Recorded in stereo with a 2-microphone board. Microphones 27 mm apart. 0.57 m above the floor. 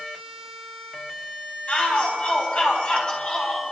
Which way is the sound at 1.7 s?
50° left (ahead or behind).